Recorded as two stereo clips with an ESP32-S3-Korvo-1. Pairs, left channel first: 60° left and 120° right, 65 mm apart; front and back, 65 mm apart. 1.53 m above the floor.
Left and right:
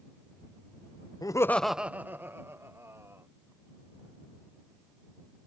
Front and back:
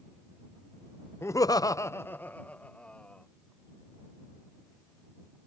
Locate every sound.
1.2 s laughter: 50° left; by 3.3 s 75° right